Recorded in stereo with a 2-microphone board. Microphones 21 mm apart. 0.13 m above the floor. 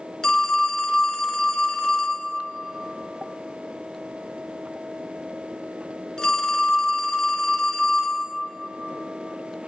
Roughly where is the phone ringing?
Left.